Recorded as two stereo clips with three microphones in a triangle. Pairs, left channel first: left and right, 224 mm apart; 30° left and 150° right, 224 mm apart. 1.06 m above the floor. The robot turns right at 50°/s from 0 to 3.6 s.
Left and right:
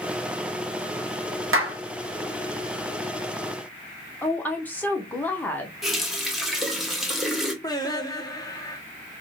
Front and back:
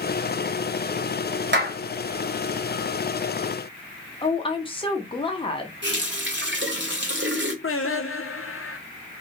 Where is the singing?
20° left, 0.6 m.